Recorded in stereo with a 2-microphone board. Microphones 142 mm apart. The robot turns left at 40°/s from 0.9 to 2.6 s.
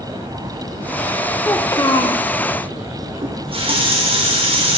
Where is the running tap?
45° right (ahead or behind), 0.9 m.